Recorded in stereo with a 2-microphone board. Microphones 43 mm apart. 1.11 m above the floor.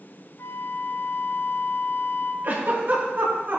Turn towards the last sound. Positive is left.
turn(degrees=-45)  # may be behind; listen again after turning